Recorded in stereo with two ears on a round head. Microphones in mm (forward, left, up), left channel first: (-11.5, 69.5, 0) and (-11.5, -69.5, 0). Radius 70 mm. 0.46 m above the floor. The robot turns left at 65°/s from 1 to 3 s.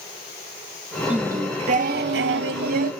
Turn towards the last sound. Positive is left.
turn(degrees=-130)